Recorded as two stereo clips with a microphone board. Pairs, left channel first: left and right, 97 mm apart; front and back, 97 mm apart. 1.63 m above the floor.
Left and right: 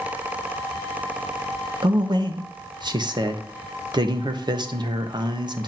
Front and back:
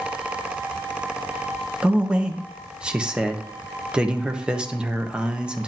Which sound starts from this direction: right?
A man speaking, at 1.8 s.